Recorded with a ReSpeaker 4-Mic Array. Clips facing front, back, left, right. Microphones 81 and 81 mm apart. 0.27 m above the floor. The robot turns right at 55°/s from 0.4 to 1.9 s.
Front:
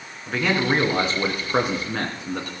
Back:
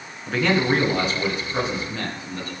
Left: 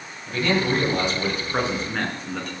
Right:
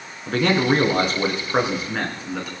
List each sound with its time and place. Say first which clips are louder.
0.3 s a man speaking: back 2 dB, right 4 dB; 85° right, 3.5 m; by 2.5 s 5° right, 3.5 m